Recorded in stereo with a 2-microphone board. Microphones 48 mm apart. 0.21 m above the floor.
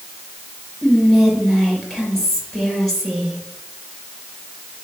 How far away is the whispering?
About 4.5 m.